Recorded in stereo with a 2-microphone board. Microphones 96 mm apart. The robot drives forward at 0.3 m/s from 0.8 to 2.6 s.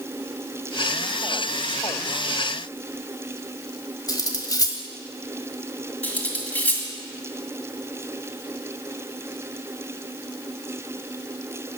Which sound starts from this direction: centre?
Cutlery clinking, at 6.0 s.